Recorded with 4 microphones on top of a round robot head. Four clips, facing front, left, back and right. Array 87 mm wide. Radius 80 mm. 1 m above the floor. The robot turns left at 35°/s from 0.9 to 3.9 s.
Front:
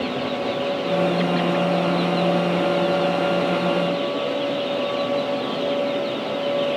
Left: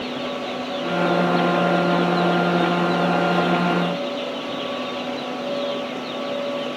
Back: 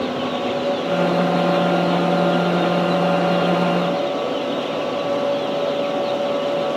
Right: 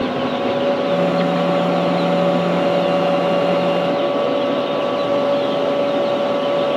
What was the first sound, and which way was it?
Only background noise.